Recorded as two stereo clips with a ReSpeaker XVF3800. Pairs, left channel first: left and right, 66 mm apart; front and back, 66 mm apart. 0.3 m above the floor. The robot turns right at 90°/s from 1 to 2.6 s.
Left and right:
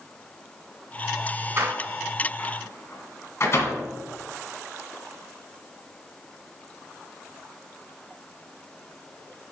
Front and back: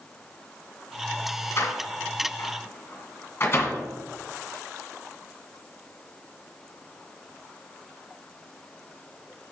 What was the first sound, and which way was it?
A door slam, 45° right.